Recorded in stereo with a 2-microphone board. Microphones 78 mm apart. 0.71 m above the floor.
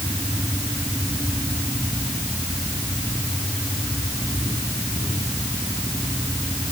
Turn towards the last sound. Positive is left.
No sound to turn to.